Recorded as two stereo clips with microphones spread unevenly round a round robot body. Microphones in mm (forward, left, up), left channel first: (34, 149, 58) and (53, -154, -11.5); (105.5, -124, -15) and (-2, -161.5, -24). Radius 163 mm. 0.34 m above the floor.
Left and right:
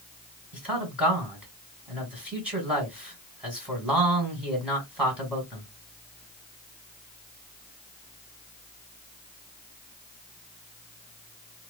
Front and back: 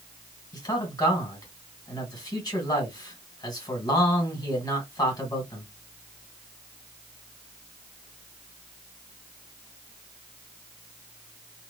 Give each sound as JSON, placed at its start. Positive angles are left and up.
{"t": 0.5, "sound": "a man speaking", "azimuth_deg": -20, "distance_m": 1.9}